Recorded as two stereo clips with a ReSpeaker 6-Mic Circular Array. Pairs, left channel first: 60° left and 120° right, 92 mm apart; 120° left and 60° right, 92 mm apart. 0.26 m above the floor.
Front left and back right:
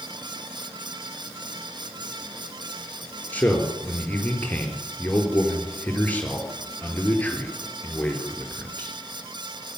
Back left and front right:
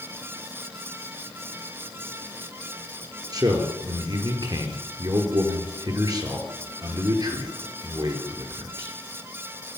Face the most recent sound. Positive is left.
turn(degrees=-15)